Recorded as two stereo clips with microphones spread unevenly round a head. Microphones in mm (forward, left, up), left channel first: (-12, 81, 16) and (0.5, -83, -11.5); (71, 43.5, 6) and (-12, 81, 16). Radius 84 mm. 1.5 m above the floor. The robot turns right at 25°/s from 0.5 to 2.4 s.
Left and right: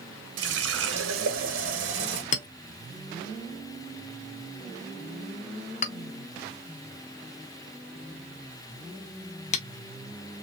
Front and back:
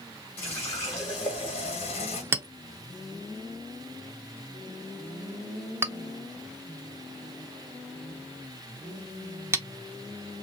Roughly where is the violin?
No violin in this recording.